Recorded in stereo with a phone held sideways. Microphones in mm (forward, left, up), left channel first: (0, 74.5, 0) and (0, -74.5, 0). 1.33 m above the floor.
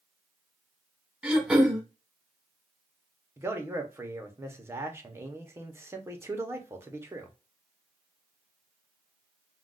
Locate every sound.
1.2 s throat clearing: 5° right (ahead or behind), 1.0 m
3.4 s a man speaking: 15° right (ahead or behind), 0.8 m